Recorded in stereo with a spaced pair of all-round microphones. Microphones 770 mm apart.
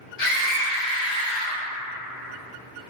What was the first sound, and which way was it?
A scream, 55° left (ahead or behind).